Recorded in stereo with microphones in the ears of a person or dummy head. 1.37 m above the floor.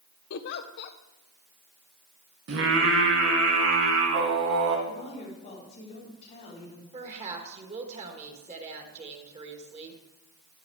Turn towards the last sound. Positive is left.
turn(degrees=-30)  # may be behind; listen again after turning